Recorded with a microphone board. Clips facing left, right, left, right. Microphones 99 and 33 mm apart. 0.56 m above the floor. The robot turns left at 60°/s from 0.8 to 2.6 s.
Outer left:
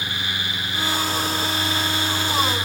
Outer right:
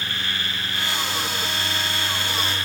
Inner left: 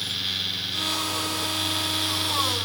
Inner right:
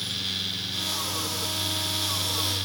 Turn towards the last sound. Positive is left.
No sound to turn to.